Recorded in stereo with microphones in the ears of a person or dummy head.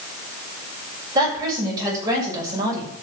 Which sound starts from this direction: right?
A woman speaking, at 1.1 s.